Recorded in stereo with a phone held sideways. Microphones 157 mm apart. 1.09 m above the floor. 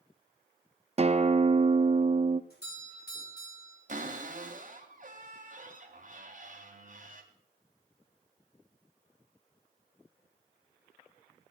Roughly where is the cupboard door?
Right.